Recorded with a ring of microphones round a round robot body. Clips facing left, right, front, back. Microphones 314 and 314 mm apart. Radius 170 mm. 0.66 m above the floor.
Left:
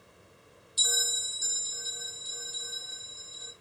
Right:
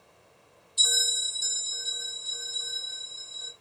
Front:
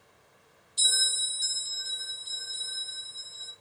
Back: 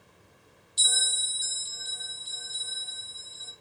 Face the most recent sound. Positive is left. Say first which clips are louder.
# even, back 3 dB
turn(degrees=160)